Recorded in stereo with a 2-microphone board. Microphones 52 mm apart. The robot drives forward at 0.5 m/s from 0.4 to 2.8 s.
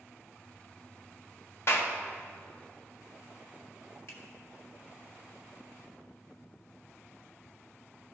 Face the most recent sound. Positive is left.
turn(degrees=55)  # may be behind; listen again after turning